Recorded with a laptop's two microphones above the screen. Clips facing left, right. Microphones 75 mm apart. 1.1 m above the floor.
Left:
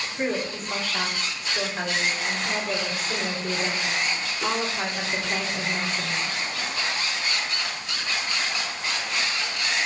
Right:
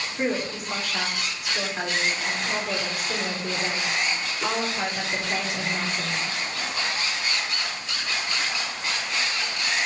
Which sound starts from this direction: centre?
A woman speaking, at 0.2 s.